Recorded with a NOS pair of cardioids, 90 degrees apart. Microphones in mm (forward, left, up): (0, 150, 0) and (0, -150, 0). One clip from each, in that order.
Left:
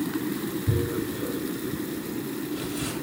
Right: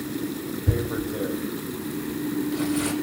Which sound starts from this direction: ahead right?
Tearing paper, at 0.7 s.